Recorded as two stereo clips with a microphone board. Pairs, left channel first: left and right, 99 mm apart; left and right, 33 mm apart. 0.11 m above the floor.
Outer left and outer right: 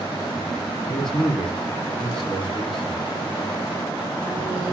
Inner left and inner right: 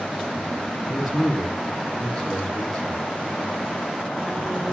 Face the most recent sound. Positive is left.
turn(degrees=5)  # may be behind; listen again after turning